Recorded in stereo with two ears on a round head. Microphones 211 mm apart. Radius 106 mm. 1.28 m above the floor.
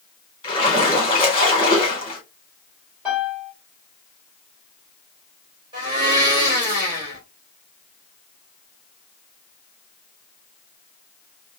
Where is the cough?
I don't hear a cough.